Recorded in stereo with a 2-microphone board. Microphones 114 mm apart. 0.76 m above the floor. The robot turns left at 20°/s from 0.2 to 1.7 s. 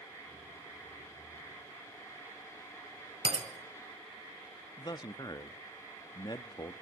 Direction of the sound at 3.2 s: 55° right (ahead or behind).